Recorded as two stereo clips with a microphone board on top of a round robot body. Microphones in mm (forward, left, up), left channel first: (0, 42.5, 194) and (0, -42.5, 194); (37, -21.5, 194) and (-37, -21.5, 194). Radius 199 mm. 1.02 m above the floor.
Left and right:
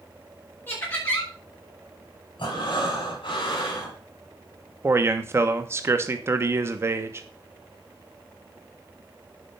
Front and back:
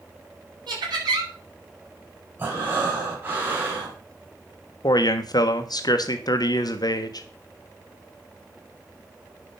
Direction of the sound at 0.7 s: 155° left.